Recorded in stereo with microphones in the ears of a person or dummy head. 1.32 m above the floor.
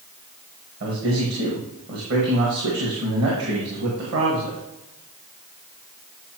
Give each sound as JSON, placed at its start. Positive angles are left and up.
{"t": 0.8, "sound": "a man speaking", "side_deg": -60, "distance_m": 1.8}